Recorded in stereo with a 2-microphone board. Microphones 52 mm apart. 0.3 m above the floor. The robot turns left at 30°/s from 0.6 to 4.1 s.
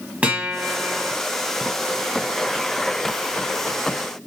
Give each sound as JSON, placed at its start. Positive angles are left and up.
{"t": 0.2, "sound": "a guitar", "side_deg": -30, "distance_m": 0.9}